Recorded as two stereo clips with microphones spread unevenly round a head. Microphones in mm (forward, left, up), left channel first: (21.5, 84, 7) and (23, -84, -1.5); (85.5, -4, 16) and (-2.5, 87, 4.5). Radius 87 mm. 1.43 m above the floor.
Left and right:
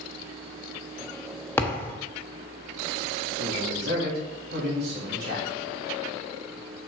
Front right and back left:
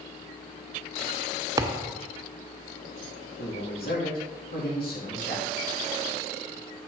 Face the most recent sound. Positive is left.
turn(degrees=-60)